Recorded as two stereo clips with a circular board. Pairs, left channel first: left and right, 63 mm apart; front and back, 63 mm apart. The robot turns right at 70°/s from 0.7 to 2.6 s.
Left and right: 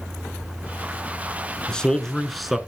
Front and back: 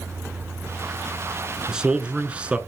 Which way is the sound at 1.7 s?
130° left.